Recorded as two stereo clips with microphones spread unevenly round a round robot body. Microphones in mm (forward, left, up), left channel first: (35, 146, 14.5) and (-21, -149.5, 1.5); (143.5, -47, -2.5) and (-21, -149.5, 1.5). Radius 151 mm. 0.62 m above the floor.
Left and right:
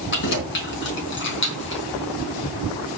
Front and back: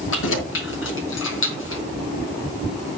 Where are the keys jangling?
25° left, 4.5 m.